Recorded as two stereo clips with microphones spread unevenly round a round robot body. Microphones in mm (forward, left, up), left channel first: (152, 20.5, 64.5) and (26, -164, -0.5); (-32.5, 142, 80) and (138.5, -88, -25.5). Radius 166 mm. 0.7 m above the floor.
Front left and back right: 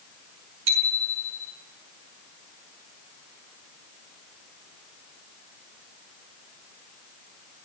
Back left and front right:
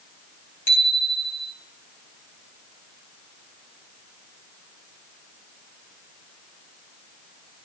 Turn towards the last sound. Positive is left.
turn(degrees=-150)